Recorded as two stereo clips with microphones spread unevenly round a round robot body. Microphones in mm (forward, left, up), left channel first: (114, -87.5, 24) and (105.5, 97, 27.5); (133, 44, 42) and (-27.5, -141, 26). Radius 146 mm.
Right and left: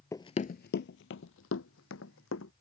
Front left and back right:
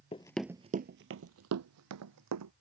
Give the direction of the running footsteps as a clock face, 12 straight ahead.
12 o'clock.